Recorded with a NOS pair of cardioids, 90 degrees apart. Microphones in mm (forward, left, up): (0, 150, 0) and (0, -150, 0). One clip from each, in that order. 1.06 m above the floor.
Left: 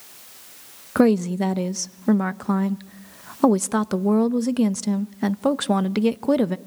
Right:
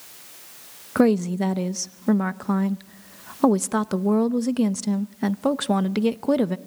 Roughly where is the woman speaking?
Ahead.